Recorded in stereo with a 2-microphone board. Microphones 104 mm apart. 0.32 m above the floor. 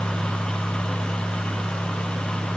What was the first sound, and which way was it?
Only background noise.